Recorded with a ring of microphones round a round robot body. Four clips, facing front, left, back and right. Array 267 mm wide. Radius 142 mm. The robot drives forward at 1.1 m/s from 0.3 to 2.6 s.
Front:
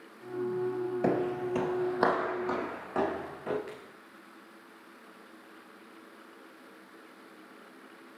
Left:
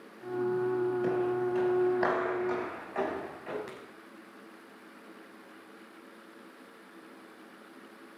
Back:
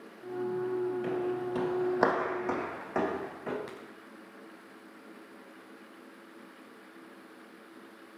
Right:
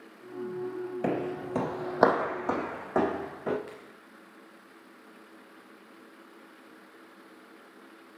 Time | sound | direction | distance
1.0 | footsteps | 35° right | 0.9 m
3.7 | a crack | 145° left | 5.5 m